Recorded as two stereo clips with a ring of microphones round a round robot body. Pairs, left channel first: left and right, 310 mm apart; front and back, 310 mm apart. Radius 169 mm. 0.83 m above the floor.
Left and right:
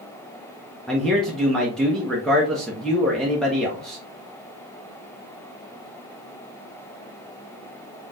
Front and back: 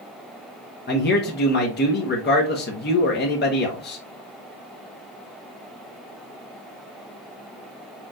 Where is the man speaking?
5° left, 0.8 m.